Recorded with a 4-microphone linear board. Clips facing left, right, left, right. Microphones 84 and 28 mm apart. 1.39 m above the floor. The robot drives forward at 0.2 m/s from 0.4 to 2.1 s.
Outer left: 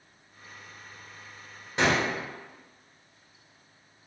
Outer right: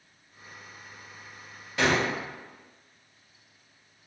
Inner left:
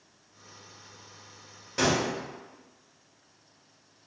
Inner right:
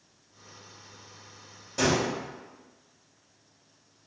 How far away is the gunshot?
About 1.2 m.